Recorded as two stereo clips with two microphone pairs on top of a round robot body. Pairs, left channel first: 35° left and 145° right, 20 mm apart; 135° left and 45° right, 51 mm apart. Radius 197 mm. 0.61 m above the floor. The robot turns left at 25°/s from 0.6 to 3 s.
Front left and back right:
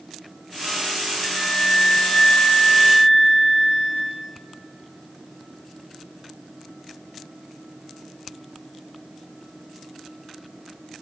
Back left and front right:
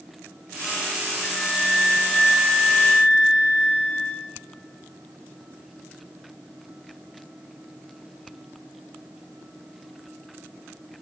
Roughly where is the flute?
Ahead.